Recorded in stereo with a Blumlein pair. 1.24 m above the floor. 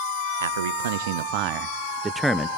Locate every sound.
0.4 s a man speaking: 65° right, 1.2 m; by 2.5 s 10° left, 0.7 m